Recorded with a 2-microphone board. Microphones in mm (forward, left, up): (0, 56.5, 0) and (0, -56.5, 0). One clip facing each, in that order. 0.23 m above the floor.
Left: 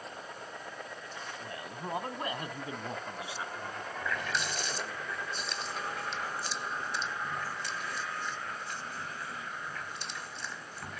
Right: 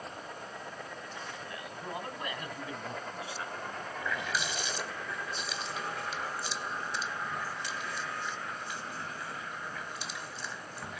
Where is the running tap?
5° right (ahead or behind), 0.9 m.